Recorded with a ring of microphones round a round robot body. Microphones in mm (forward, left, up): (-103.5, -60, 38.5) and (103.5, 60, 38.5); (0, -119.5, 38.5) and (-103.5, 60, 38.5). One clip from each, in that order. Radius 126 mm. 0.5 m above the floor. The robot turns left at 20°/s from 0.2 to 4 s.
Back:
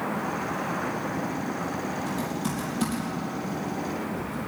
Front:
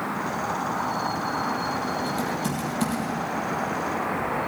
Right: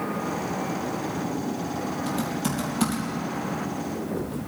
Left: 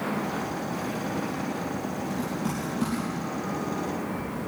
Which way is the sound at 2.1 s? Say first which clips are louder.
Front 4 dB, right 3 dB; 45° right.